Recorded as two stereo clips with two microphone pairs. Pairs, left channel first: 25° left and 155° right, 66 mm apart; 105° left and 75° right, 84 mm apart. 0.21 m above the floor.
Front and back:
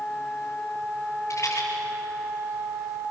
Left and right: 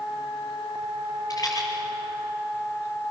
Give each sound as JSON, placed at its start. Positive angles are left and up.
{"t": 1.3, "sound": "a rattle", "azimuth_deg": 65, "distance_m": 4.5}